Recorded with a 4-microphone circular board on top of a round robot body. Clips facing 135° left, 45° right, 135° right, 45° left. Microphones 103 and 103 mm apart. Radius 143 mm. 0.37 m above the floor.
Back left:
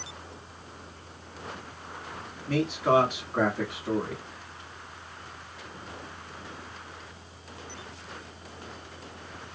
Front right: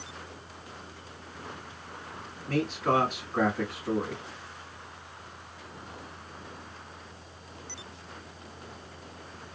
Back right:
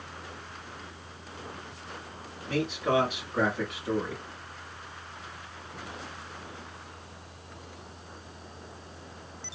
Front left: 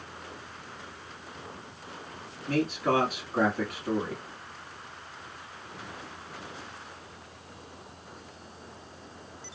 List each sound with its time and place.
2.5 s a man speaking: 65° left, 1.6 m